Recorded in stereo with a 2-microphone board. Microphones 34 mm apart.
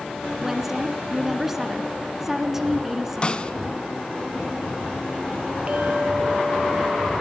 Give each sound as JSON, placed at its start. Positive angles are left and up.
{"t": 0.4, "sound": "a woman speaking", "side_deg": -10, "distance_m": 2.0}
{"t": 3.2, "sound": "a snare drum", "side_deg": 25, "distance_m": 0.9}
{"t": 5.7, "sound": "a clink", "side_deg": -35, "distance_m": 3.0}